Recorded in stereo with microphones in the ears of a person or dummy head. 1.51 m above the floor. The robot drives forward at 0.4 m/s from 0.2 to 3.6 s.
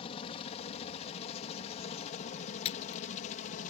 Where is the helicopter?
30° left (ahead or behind); by 3.7 s 40° left (ahead or behind).